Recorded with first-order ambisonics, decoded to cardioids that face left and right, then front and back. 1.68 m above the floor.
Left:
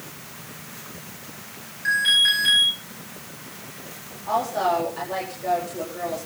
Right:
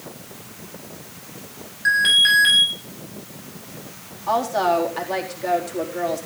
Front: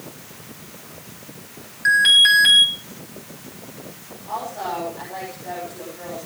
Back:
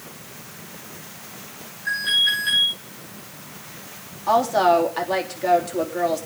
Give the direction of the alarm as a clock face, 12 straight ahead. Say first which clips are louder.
Right 3 dB, front 7 dB; 1 o'clock.